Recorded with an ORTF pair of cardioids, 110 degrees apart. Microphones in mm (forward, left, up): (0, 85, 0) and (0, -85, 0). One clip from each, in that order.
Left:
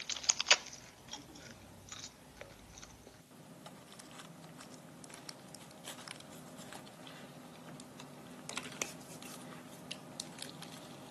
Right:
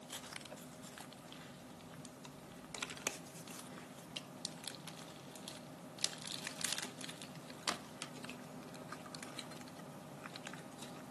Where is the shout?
I don't hear a shout.